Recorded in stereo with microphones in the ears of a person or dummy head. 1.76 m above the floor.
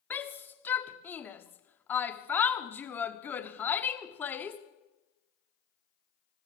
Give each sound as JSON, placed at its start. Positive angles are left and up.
{"t": 0.1, "sound": "a shout", "side_deg": 10, "distance_m": 1.0}